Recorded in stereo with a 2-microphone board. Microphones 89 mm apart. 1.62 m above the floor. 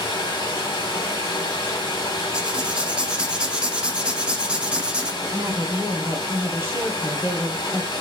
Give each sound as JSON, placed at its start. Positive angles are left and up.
{"t": 0.0, "sound": "running water", "side_deg": 50, "distance_m": 1.6}
{"t": 2.3, "sound": "writing", "side_deg": -10, "distance_m": 0.7}
{"t": 5.2, "sound": "a woman speaking", "side_deg": -25, "distance_m": 1.1}